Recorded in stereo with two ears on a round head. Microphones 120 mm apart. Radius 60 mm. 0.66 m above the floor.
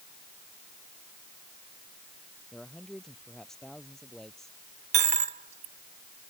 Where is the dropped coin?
55° right (ahead or behind).